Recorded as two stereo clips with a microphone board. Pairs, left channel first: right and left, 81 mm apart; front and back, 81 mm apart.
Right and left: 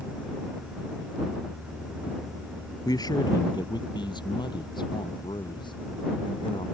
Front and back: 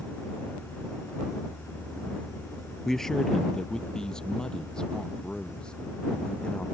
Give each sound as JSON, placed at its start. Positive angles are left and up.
{"t": 2.9, "sound": "a man speaking", "azimuth_deg": -85}